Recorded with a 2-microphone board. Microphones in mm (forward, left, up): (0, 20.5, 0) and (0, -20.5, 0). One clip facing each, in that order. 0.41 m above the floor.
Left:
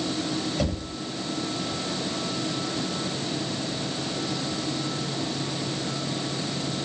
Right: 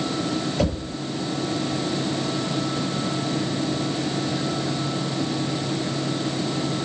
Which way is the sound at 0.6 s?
10° right (ahead or behind).